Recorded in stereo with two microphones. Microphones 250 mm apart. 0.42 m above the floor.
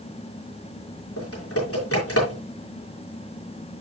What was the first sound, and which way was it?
Typing on a keyboard, 65° left (ahead or behind).